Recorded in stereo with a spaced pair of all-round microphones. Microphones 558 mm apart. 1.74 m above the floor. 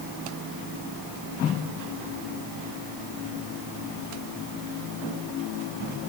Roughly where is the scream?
No scream in this recording.